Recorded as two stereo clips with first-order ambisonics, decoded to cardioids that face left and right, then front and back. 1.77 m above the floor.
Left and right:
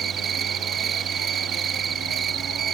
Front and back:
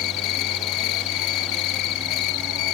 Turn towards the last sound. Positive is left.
turn(degrees=-25)